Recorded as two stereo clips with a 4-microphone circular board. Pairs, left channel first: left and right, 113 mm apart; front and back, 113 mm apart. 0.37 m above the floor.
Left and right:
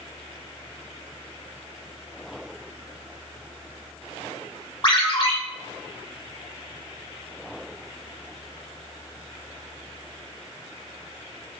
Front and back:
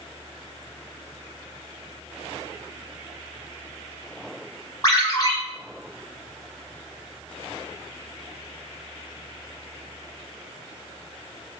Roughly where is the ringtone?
Ahead left.